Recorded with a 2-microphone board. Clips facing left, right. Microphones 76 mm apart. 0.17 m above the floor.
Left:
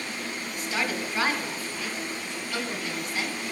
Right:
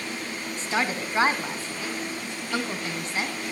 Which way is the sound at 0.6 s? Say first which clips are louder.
Right 3 dB; 30° right (ahead or behind).